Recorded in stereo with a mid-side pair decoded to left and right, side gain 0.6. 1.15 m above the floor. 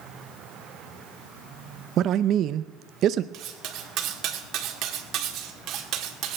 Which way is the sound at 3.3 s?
60° right.